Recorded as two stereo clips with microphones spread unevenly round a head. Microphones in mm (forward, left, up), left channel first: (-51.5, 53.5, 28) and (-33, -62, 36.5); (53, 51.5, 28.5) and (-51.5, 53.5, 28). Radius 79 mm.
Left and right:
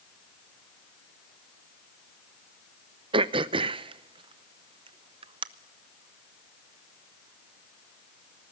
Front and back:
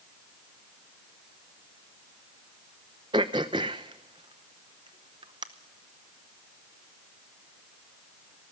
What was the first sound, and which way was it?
Throat clearing, 120° right.